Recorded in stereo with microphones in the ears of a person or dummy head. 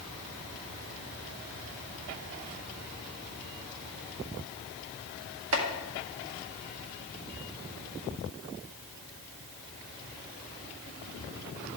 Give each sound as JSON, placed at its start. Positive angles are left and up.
{"t": 5.5, "sound": "chopping", "side_deg": -70, "distance_m": 1.9}